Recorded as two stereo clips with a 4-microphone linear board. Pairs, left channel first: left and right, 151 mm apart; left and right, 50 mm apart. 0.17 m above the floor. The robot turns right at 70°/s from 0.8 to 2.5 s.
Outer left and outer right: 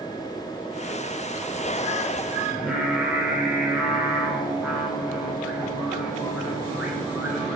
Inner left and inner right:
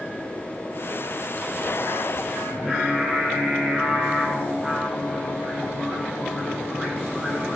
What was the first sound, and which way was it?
Singing, 5° right (ahead or behind).